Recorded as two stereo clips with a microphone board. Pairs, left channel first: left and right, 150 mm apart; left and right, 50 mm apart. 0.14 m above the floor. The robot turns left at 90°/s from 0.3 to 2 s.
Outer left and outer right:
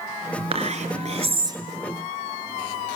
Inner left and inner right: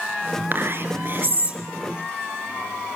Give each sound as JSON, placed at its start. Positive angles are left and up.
{"t": 0.5, "sound": "whispering", "azimuth_deg": -55, "distance_m": 2.5}